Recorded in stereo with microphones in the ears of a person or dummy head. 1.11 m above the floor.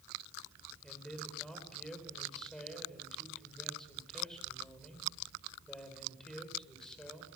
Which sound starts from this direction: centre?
A man speaking, at 0.8 s.